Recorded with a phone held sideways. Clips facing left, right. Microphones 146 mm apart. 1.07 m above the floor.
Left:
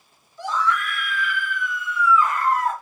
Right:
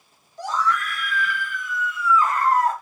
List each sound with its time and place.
0.4 s a scream: 45° right (ahead or behind), 0.9 m